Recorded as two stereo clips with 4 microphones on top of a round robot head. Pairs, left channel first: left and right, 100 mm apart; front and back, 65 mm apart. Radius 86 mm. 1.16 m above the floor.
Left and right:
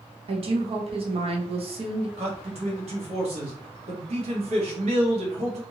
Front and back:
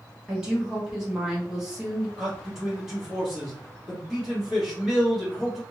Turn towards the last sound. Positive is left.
turn(degrees=-90)